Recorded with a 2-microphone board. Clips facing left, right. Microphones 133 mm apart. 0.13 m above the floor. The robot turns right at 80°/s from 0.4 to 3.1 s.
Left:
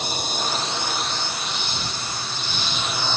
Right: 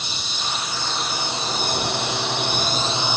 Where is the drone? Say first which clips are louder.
Left 5 dB; 130° left; by 3.2 s 15° right.